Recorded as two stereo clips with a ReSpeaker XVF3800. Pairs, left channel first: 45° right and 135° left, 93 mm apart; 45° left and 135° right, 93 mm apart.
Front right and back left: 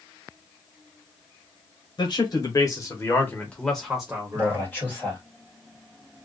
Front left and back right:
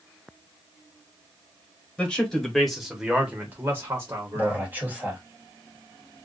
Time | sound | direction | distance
2.0 | a man speaking | 30° right | 1.2 m
4.3 | a man speaking | 90° right | 1.5 m